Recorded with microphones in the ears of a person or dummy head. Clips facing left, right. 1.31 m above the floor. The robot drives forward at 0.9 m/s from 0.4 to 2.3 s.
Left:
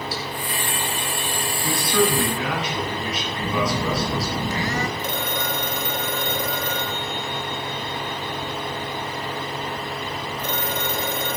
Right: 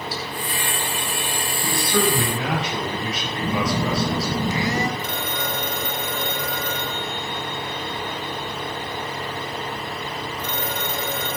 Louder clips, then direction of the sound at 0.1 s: Left 1 dB; 40° left (ahead or behind).